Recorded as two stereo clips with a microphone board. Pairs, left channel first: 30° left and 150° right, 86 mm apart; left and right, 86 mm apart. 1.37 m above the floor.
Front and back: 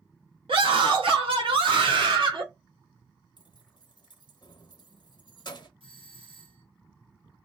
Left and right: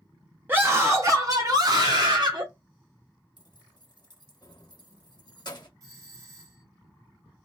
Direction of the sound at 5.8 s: 140° right.